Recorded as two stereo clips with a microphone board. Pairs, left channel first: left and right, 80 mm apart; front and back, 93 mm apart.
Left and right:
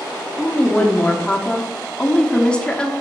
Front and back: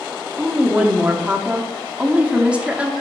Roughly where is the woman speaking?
Behind left.